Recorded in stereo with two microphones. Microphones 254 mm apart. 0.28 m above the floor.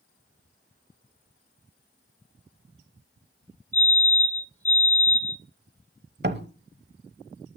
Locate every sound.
3.7 s a fire alarm: 10° left (ahead or behind), 2.5 m
6.2 s a door slam: 40° right (ahead or behind), 0.9 m